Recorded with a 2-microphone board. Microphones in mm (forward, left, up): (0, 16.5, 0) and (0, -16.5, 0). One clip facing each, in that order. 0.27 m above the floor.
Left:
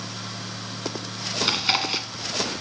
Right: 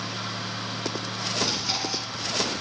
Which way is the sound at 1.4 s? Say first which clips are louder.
Left 8 dB; 65° left (ahead or behind).